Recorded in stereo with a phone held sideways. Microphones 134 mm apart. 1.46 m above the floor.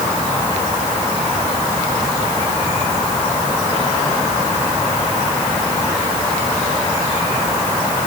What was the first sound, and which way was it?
Only background noise.